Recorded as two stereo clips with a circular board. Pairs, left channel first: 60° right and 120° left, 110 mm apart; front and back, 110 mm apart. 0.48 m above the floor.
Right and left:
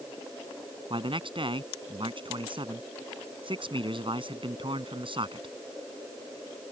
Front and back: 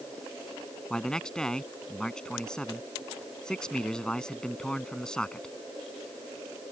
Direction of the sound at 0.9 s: 80° left.